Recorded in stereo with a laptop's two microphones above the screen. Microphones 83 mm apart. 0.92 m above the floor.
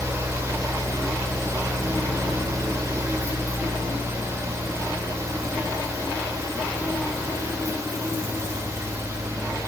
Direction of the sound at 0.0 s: 35° right (ahead or behind).